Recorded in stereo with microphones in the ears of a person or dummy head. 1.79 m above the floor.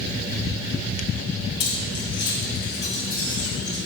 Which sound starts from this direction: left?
Keys jangling, at 1.6 s.